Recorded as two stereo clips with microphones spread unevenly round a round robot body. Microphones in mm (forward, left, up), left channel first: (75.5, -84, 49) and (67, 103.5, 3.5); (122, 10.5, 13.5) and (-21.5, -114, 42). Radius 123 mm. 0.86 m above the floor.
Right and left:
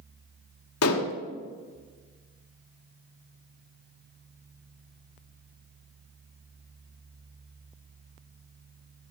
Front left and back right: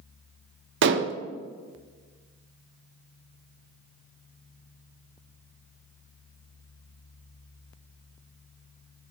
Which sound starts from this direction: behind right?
Dishes clattering, at 0.8 s.